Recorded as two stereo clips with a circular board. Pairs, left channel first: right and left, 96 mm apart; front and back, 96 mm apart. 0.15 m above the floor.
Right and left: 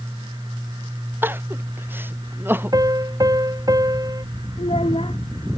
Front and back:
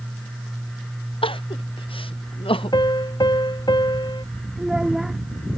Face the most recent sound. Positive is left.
turn(degrees=-95)